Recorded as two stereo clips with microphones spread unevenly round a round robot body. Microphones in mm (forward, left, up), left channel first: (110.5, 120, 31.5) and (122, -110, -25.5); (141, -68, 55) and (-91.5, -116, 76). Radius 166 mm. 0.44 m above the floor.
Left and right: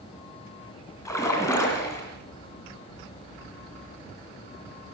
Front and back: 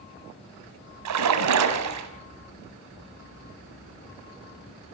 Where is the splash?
175° left, 2 m.